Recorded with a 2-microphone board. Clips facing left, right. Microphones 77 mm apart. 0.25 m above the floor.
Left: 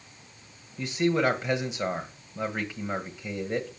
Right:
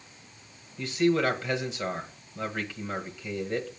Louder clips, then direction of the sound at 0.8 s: Even; 20° left (ahead or behind).